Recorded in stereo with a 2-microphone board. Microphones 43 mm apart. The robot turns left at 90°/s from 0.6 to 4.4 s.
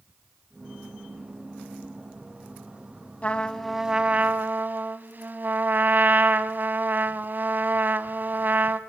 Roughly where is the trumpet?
Ahead left.